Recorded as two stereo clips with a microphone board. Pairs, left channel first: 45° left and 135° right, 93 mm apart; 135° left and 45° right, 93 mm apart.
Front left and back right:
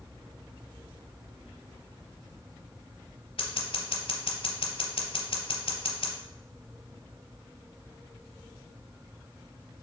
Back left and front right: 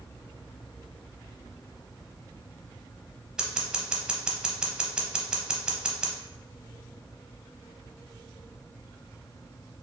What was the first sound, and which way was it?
Scissors, 35° left.